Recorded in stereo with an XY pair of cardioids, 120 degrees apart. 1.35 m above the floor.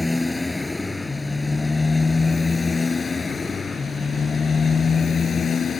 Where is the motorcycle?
10° left; by 5.8 s 35° left.